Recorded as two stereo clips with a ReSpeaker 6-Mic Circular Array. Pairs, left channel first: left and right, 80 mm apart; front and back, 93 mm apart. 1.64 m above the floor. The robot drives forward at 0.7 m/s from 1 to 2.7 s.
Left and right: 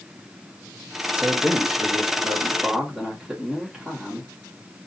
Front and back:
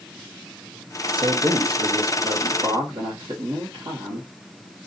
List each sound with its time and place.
1.1 s a man speaking: 160° right, 0.6 m; by 4.3 s 175° right, 1.6 m